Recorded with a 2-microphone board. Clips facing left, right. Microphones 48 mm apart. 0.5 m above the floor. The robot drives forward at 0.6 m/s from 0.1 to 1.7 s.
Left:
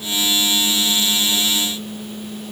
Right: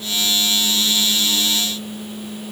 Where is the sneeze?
No sneeze in this recording.